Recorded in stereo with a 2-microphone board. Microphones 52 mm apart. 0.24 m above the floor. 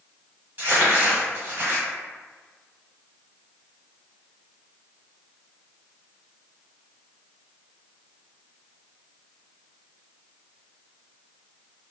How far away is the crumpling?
About 1.4 m.